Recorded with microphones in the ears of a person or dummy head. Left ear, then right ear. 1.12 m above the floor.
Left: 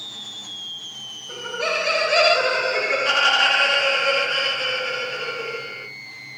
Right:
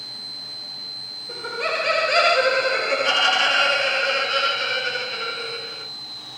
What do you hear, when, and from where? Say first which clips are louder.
1.3 s laughter: left 1 dB; 10° right (ahead or behind), 0.8 m; by 5.8 s 50° right (ahead or behind), 2.5 m